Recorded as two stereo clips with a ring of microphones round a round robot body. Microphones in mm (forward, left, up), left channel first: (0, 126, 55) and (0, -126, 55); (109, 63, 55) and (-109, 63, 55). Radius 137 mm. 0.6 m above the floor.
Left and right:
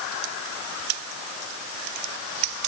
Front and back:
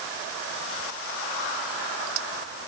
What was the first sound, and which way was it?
Only background noise.